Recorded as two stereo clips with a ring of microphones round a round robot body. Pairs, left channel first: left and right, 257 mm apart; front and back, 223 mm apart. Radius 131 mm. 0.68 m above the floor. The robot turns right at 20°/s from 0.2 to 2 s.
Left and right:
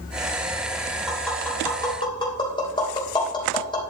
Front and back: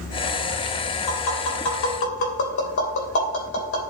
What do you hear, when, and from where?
1.1 s tapping: straight ahead, 3 m; by 3.8 s 20° left, 3 m